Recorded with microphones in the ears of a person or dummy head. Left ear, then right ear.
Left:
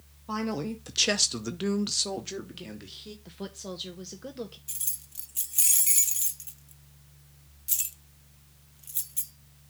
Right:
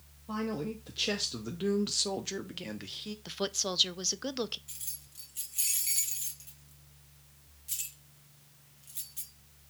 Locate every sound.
0.3 s a man speaking: 60° left (ahead or behind), 1.0 m; by 3.1 s 20° right (ahead or behind), 1.1 m
3.2 s a woman speaking: 35° right (ahead or behind), 0.7 m
4.7 s keys jangling: 15° left (ahead or behind), 0.5 m